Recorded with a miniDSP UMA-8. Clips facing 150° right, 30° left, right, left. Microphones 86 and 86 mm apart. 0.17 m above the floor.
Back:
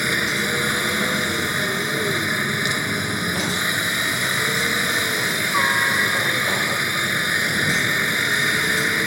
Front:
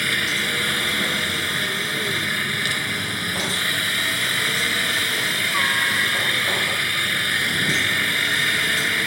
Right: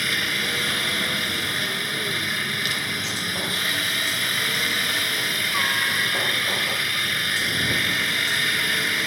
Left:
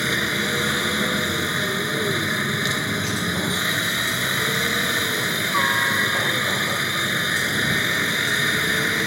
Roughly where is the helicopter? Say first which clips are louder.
Back 2 dB, left 3 dB; behind left.